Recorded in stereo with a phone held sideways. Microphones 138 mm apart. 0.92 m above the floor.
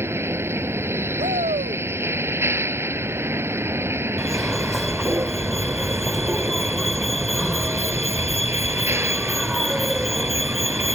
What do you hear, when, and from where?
0.0 s a vehicle: 20° right (ahead or behind)
1.2 s a shout: 70° right (ahead or behind)
4.2 s a fire alarm: centre (ahead or behind)